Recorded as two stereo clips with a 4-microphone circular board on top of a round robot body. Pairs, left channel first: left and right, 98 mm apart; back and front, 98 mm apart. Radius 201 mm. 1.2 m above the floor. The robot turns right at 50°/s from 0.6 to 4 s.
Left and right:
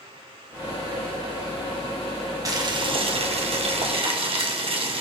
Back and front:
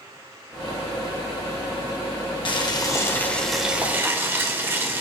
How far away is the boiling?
About 2.5 m.